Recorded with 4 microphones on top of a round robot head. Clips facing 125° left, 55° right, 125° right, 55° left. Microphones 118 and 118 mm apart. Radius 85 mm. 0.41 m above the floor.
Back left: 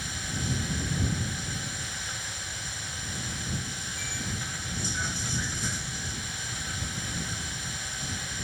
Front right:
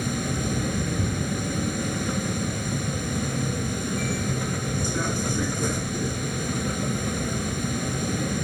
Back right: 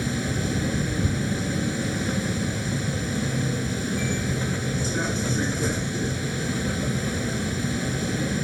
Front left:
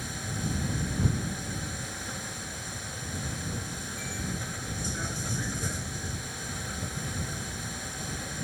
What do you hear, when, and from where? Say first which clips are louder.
0.0 s a vehicle: front right 9 dB, back right 9 dB; 95° right